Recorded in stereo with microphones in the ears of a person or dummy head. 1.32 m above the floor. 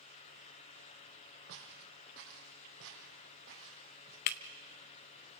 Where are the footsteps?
60° right (ahead or behind), 4 m; by 4.2 s 45° right (ahead or behind), 4.5 m.